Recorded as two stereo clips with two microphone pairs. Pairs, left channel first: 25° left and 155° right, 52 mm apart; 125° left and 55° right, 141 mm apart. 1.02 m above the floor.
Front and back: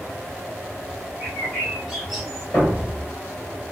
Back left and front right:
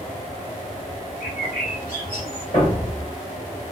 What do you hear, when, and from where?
1.2 s a bird: 115° left, 2 m
2.5 s a thud: 85° left, 2.5 m